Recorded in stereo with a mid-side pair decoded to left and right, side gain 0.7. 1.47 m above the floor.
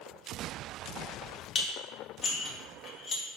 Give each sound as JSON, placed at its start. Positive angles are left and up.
{"t": 1.6, "sound": "dishes clattering", "azimuth_deg": 35, "distance_m": 1.6}